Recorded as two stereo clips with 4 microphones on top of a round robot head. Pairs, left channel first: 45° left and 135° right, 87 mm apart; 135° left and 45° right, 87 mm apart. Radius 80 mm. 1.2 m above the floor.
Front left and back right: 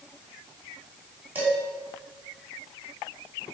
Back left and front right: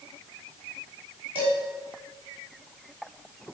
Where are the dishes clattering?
70° right, 5 m.